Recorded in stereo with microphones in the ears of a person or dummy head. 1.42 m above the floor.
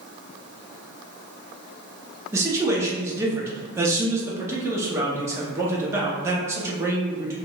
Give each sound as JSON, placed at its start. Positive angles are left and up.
{"t": 2.3, "sound": "a man speaking", "side_deg": -10, "distance_m": 0.6}